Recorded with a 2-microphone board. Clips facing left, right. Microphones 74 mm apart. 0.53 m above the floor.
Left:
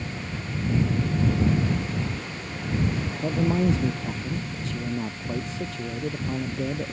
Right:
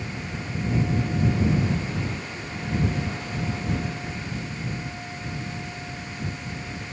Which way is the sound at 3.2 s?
85° left.